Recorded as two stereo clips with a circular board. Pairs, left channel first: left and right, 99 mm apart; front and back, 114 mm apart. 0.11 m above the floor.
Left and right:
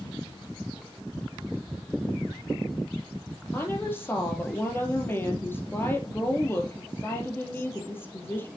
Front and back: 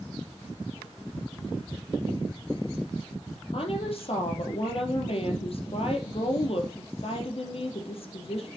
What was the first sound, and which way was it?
A woman speaking, 25° left.